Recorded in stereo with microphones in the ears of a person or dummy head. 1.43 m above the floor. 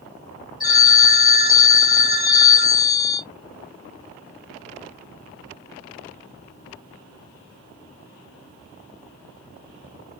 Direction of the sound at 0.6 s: 20° right (ahead or behind).